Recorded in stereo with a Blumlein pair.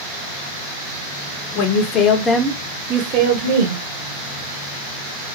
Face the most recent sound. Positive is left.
turn(degrees=-65)